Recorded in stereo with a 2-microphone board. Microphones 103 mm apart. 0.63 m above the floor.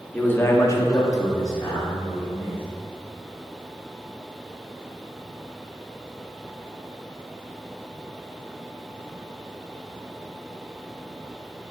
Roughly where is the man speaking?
Centre.